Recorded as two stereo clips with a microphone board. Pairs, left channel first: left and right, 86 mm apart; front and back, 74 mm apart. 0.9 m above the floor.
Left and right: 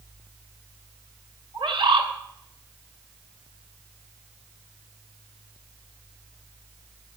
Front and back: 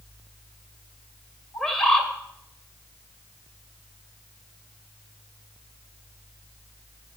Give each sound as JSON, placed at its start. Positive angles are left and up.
{"t": 1.5, "sound": "a bird", "azimuth_deg": -85, "distance_m": 2.0}